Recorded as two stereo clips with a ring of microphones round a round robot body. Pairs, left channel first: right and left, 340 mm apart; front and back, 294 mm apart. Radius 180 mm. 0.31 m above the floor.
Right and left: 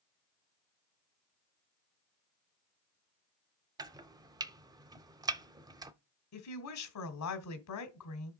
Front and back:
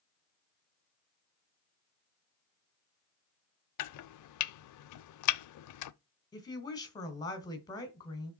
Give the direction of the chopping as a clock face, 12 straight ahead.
12 o'clock.